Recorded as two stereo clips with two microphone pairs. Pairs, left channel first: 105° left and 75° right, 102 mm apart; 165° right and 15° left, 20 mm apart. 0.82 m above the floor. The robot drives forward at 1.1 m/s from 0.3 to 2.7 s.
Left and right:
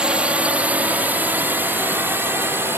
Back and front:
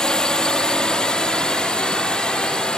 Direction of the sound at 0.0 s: 150° right.